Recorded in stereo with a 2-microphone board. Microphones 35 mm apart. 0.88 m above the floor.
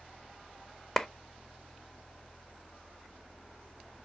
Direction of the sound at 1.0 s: 15° left (ahead or behind).